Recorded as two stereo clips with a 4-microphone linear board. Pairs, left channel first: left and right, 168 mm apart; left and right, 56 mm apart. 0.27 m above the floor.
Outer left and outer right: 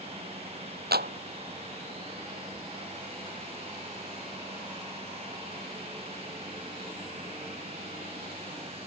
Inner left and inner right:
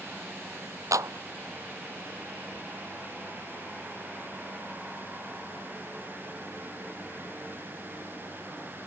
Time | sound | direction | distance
0.9 | a clap | 70° right (ahead or behind) | ?